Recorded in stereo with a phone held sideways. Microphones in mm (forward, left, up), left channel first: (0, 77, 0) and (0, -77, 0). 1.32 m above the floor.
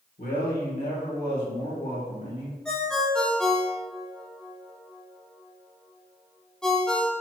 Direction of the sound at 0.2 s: 70° left (ahead or behind).